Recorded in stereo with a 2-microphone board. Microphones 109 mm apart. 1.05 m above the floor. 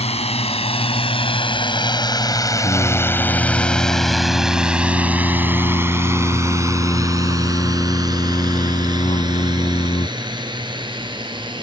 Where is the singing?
50° left (ahead or behind).